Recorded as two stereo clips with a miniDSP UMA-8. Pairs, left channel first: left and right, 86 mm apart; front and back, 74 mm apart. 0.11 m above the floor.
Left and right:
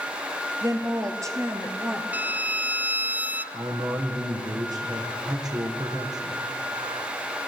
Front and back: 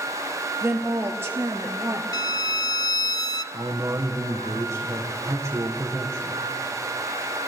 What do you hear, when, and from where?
0.6 s a woman speaking: 125° right, 3 m; by 2.0 s 145° right, 2.5 m
2.1 s a violin: 20° right, 0.6 m
3.5 s a man speaking: 130° right, 4.5 m